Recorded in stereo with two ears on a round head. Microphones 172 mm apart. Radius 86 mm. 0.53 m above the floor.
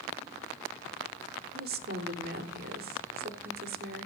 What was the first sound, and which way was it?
A woman speaking, 50° right (ahead or behind).